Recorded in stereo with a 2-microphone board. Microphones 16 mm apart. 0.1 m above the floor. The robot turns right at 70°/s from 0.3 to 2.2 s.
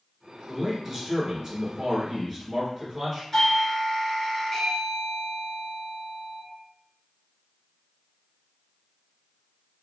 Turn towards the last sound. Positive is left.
turn(degrees=20)  # may be behind; listen again after turning